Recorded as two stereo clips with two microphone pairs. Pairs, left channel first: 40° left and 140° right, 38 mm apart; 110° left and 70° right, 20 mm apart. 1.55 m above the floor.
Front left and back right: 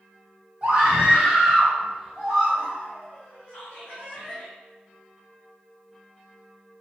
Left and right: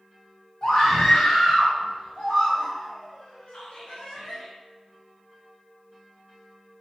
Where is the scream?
155° left, 1.3 m; by 4.4 s 120° left, 3 m.